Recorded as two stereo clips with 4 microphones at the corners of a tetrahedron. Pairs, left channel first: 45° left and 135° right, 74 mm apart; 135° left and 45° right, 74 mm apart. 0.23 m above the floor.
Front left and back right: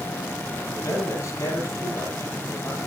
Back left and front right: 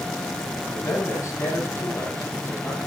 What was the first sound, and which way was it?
A man speaking, 85° left.